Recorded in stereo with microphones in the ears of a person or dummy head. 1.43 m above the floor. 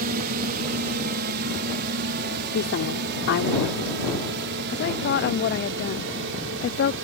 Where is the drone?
55° right (ahead or behind); by 7.0 s 70° right (ahead or behind).